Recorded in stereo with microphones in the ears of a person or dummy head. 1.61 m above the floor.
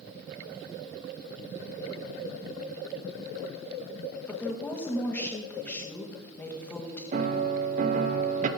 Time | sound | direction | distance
4.3 | a woman speaking | 10° left (ahead or behind) | 1.6 m
7.1 | a piano | 45° right (ahead or behind) | 0.8 m